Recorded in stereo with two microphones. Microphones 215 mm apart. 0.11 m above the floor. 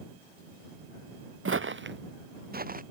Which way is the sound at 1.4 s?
75° right (ahead or behind).